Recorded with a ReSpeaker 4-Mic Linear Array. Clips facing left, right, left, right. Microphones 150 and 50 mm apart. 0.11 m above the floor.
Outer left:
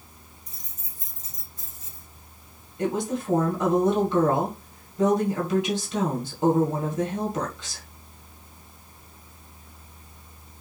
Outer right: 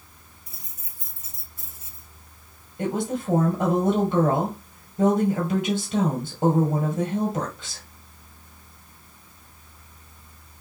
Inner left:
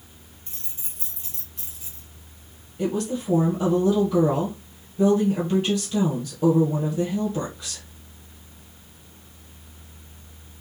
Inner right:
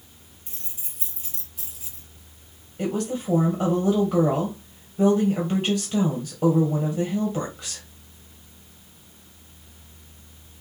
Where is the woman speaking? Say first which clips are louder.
Even, inner left 1 dB; 25° right (ahead or behind), 2.5 m.